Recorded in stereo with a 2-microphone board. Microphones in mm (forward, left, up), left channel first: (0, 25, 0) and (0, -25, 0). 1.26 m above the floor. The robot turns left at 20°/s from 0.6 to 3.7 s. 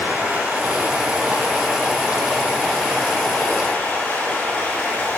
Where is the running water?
145° right, 3 m; by 5.2 s 150° left, 3 m.